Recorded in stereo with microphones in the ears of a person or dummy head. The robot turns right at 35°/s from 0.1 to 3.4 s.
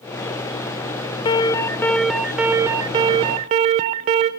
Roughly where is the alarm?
Behind left.